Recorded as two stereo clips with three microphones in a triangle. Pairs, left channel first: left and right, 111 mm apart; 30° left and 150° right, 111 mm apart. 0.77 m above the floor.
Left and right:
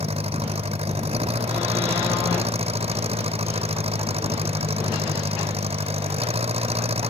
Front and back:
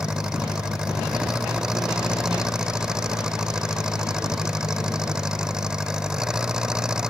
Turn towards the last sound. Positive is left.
turn(degrees=-65)